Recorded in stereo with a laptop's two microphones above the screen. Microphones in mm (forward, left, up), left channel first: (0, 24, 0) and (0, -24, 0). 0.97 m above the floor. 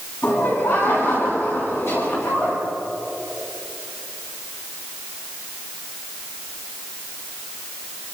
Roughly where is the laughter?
Left.